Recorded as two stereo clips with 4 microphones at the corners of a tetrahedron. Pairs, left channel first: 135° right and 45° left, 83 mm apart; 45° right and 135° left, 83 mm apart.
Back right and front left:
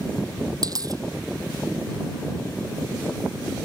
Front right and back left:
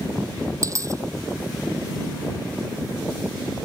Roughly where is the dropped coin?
Left.